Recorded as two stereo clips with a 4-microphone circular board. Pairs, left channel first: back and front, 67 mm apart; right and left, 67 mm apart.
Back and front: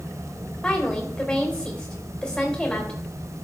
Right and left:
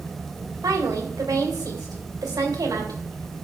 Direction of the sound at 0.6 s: 100° left.